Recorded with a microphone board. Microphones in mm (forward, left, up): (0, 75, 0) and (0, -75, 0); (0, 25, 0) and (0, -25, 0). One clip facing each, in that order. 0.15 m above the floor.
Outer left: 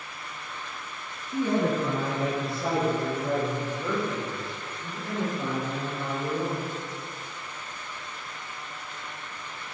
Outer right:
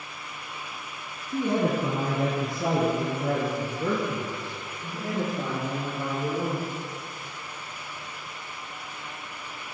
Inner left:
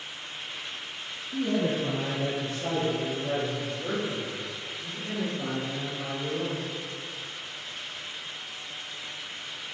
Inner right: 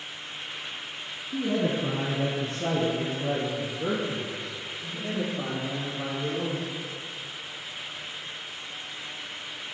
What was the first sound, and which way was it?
A man speaking, 10° right (ahead or behind).